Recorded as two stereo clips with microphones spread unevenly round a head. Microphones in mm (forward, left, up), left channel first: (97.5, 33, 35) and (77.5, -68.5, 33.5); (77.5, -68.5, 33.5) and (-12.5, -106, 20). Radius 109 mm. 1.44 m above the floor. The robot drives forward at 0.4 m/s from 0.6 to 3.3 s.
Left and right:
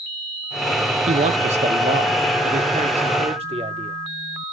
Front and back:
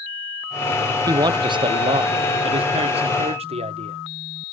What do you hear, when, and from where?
1.1 s a man speaking: 105° right, 0.6 m; by 4.0 s 150° right, 1.2 m